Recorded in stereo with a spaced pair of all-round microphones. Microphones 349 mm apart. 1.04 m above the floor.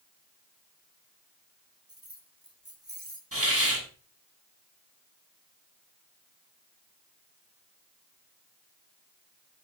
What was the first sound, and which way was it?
Keys jangling, 40° right (ahead or behind).